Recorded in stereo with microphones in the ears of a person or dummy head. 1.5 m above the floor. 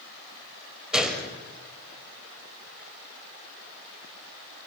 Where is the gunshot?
5° right (ahead or behind), 3 m.